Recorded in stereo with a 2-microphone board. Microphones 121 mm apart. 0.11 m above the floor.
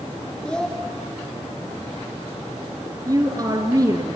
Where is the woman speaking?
30° right (ahead or behind), 1.6 m.